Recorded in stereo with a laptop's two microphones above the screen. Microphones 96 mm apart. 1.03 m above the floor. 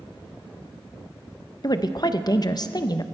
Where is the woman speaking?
45° left (ahead or behind), 0.5 m.